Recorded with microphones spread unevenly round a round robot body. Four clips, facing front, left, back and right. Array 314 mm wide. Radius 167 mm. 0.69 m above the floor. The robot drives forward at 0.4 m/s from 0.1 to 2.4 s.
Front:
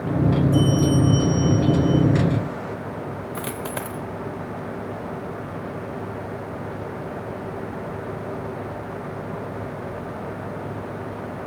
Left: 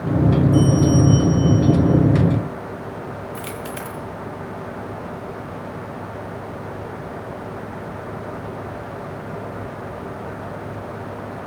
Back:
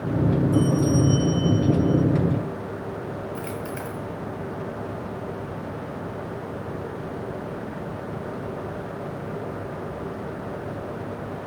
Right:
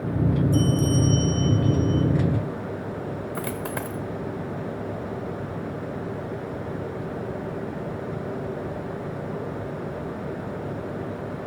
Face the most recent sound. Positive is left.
turn(degrees=-30)